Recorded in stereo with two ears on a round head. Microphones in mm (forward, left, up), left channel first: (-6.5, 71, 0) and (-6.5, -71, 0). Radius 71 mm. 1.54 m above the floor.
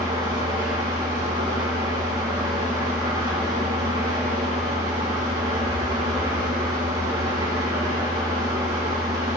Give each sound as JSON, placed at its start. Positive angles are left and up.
{"t": 0.0, "sound": "an engine running", "side_deg": -30, "distance_m": 4.0}